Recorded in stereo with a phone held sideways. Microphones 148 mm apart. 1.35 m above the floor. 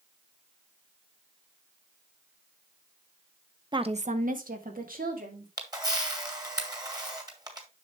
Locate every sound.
3.7 s a woman speaking: 30° right (ahead or behind), 0.7 m; by 5.5 s 85° right, 2.5 m
5.6 s a camera shutter: 25° right (ahead or behind), 1.8 m